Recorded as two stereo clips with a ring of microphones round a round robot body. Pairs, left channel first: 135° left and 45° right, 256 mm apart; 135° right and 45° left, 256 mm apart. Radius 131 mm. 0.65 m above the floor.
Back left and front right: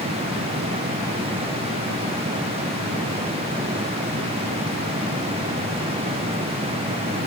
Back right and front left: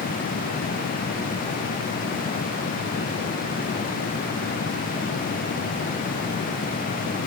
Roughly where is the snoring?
No snoring in this recording.